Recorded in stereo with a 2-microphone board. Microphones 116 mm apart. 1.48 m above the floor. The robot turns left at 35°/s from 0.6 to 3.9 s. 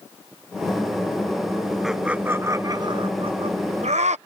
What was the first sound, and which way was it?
Laughter, centre (ahead or behind).